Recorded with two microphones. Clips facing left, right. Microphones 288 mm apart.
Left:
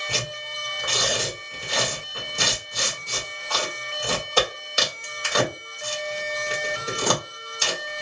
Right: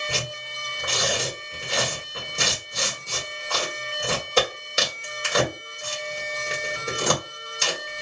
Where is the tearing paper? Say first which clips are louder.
Even; 20° right (ahead or behind), 1.7 m.